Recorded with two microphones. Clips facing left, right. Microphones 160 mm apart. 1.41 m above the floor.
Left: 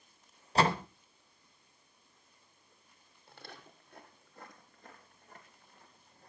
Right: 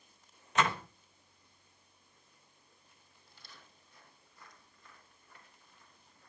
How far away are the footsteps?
About 2.5 m.